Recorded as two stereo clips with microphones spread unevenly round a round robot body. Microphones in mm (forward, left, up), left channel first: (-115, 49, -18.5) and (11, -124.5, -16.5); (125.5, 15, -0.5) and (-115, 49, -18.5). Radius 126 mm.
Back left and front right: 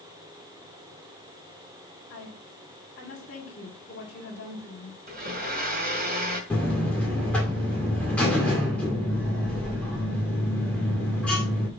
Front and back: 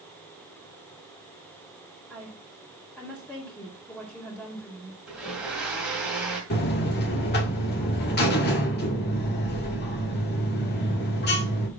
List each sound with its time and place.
2.1 s a woman speaking: 75° left, 2 m
5.1 s a blender: 100° right, 2.5 m
6.5 s a buzzer: 40° left, 2 m